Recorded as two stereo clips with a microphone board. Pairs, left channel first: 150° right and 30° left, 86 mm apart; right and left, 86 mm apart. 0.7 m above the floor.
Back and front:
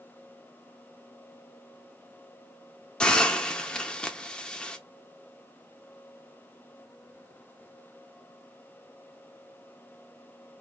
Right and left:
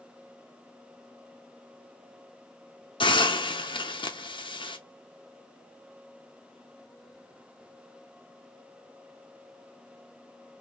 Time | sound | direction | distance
3.0 | a hiss | 70° right | 0.6 m